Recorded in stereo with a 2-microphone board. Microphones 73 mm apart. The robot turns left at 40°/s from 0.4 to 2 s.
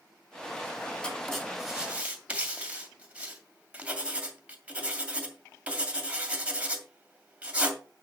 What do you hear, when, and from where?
1.0 s writing: 15° left (ahead or behind), 2 m; by 7.8 s 15° right (ahead or behind), 2 m